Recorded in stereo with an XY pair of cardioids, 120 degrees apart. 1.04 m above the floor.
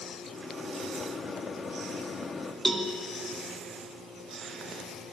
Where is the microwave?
30° left, 1.5 m.